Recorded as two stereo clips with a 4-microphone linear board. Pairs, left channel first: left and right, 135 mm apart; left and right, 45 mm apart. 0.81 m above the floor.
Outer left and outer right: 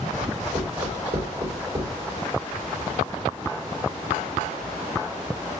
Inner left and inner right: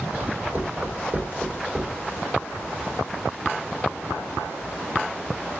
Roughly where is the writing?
Right.